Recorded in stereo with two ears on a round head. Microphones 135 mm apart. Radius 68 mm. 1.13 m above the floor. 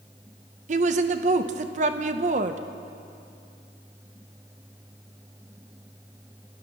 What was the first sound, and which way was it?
A woman speaking, 50° right (ahead or behind).